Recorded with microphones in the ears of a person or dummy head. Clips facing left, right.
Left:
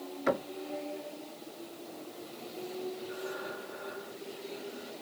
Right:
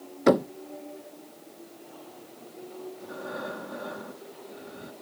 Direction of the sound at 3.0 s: 60° right (ahead or behind).